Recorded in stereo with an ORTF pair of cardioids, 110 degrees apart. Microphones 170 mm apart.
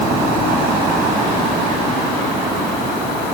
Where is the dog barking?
No dog barking in this recording.